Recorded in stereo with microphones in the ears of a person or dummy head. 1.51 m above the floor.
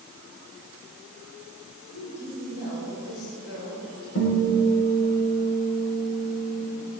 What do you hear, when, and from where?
1.9 s a woman speaking: 85° left, 7 m
4.2 s a guitar: 70° left (ahead or behind), 6 m